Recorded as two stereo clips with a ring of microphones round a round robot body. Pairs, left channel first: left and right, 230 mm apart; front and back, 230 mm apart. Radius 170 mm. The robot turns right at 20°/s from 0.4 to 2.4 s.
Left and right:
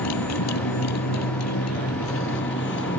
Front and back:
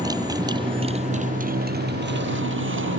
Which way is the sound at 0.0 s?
105° left.